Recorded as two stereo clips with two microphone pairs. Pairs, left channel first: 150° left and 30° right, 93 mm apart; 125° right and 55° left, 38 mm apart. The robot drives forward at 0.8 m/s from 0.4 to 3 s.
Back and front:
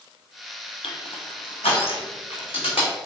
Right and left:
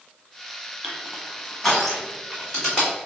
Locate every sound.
0.8 s crushing: 140° left, 0.8 m; by 2.9 s 165° left, 2.5 m